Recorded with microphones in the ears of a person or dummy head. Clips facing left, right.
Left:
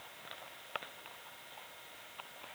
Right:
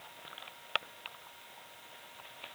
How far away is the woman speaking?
I don't hear a woman speaking.